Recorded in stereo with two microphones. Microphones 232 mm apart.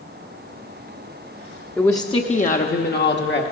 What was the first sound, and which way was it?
A woman speaking, 5° left (ahead or behind).